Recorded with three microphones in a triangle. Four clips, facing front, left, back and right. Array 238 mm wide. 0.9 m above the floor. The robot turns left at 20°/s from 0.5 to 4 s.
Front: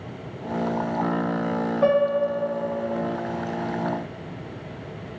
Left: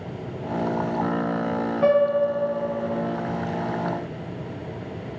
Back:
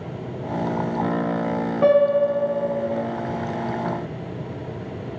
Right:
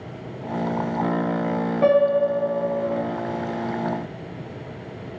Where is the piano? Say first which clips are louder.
Right 2 dB, back 4 dB; 140° right, 1.1 m; by 3.0 s 165° right, 1.1 m.